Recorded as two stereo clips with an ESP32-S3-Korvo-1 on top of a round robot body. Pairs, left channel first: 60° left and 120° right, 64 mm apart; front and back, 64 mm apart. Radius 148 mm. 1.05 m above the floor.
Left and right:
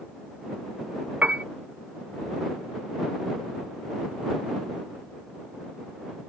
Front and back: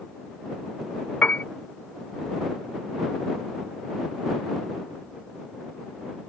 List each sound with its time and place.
1.2 s a piano: 60° right